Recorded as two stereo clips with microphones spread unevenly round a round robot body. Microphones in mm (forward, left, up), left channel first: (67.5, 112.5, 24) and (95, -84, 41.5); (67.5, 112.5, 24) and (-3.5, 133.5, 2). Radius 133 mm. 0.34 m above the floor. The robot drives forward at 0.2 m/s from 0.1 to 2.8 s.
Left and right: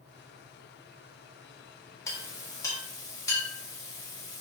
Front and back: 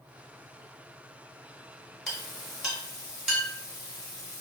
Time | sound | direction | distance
2.1 | a clink | 125° left | 0.8 m